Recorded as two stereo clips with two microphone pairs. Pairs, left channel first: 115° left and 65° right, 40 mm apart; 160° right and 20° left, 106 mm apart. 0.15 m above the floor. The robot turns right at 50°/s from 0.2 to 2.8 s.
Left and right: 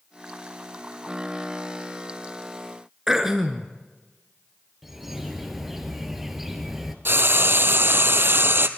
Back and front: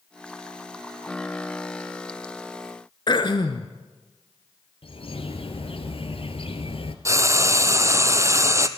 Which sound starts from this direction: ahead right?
Frying, at 7.0 s.